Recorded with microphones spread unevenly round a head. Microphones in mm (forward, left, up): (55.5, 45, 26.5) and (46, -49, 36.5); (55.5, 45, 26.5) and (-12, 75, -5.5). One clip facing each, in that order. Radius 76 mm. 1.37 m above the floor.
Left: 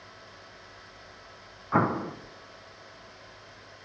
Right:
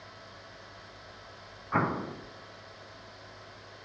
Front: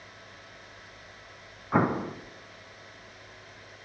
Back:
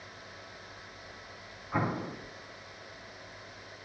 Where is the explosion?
20° left, 0.5 m.